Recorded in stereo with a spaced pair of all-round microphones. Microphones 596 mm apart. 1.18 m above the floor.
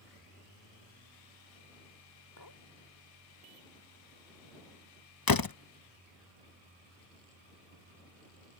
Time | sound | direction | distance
2.4 | a clink | 35° left (ahead or behind) | ?
5.3 | a door slam | 35° left (ahead or behind) | ?